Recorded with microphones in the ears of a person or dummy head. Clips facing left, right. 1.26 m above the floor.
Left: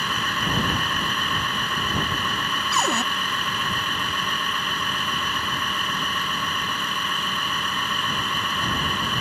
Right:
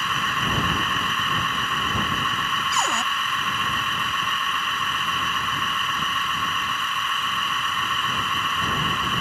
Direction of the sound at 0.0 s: 40° left (ahead or behind).